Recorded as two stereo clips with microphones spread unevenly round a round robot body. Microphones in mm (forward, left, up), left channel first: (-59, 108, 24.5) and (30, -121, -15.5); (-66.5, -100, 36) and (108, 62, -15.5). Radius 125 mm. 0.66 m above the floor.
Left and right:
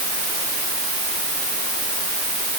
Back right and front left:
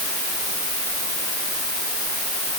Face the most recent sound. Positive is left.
No sound to turn to.